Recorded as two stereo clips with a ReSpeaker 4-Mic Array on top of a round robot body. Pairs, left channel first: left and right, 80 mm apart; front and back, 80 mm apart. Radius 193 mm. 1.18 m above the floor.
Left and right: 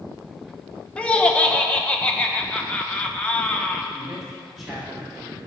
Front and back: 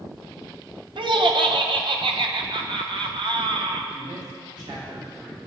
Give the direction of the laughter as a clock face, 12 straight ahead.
6 o'clock.